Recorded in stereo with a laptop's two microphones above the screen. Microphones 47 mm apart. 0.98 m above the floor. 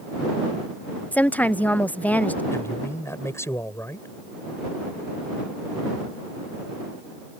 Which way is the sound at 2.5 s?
80° left.